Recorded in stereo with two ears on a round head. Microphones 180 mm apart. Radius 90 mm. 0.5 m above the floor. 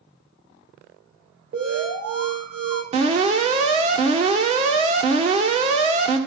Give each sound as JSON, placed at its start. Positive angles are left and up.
{"t": 1.5, "sound": "an alarm", "side_deg": -50, "distance_m": 2.5}
{"t": 2.9, "sound": "an alarm", "side_deg": -30, "distance_m": 1.7}